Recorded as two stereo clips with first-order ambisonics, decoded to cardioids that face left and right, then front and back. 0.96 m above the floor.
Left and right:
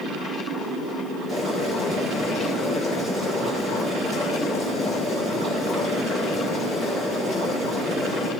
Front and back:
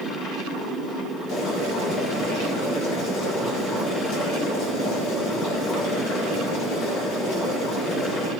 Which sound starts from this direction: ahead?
Boiling, at 1.3 s.